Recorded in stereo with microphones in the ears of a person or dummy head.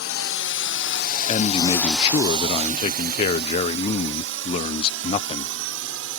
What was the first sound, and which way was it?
A drone, 70° left (ahead or behind).